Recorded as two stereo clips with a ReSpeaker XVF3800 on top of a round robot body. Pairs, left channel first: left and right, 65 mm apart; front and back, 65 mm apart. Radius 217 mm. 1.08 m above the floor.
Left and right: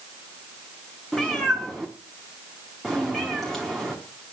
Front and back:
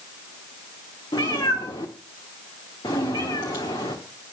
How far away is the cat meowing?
About 0.7 m.